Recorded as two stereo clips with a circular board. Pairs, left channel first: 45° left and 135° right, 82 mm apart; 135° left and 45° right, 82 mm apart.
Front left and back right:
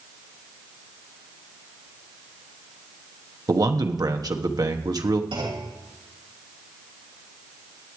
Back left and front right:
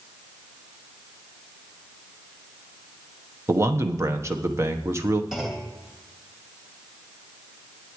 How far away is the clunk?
About 2.5 m.